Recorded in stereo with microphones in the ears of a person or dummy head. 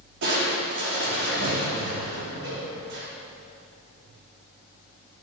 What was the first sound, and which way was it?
Crushing, 65° right (ahead or behind).